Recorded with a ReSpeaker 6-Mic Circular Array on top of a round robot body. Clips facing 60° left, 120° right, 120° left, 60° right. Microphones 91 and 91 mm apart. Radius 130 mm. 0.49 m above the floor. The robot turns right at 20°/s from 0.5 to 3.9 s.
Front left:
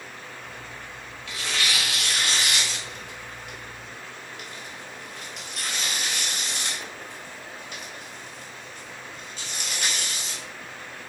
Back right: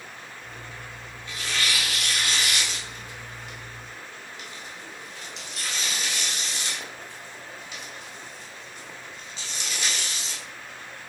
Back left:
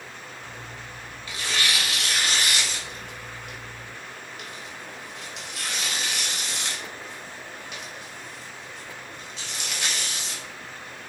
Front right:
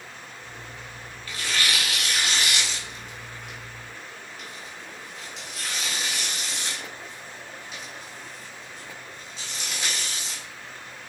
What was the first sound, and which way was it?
Tearing paper, 45° left.